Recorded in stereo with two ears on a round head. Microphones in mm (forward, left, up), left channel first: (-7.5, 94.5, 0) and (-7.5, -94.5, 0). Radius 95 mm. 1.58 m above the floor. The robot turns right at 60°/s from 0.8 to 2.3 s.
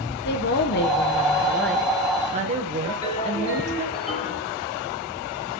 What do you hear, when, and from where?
0.2 s a woman speaking: 125° left, 0.8 m; by 3.9 s 145° right, 0.8 m
2.9 s a ringtone: 25° left (ahead or behind), 5 m